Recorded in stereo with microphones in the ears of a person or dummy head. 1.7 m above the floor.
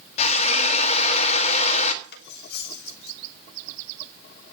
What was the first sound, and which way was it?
A drill, 40° left (ahead or behind).